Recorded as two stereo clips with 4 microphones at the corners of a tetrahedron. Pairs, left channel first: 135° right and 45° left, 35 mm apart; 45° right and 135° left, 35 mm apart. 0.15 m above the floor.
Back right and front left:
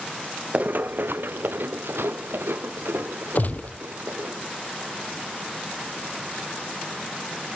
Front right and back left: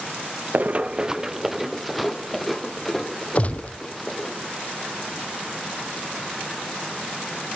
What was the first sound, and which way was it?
Running footsteps, 95° left.